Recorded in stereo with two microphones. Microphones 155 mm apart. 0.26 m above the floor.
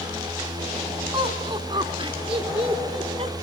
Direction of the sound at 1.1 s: 35° right (ahead or behind).